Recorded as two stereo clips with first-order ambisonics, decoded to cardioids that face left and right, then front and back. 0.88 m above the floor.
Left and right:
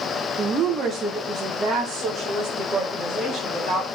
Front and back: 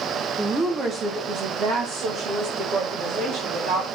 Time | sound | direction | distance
0.4 | a woman speaking | 105° right | 0.9 m